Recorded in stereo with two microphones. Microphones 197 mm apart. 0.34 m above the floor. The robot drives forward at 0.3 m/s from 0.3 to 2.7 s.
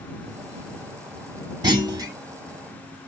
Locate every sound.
1.6 s a clunk: 20° right (ahead or behind), 1.2 m